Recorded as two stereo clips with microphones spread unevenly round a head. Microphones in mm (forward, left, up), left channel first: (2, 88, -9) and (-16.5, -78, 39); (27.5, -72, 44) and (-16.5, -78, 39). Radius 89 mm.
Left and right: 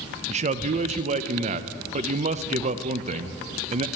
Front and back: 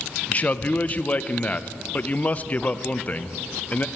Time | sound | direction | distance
0.3 | a man speaking | 45° right | 0.7 m